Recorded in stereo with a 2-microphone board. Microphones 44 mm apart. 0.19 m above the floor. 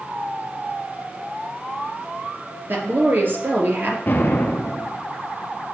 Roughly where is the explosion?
Left.